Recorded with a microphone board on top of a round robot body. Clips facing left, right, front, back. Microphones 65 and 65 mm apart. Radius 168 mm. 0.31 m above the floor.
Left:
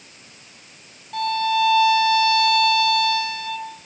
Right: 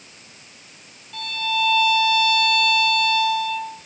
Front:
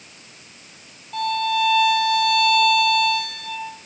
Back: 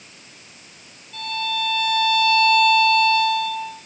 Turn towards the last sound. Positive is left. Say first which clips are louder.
# left 5 dB, front 5 dB
turn(degrees=30)